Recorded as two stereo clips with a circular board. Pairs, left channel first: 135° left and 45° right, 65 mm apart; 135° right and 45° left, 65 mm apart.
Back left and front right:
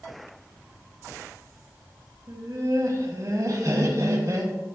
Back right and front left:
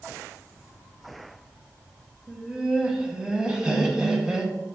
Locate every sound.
2.3 s laughter: 30° right, 2.5 m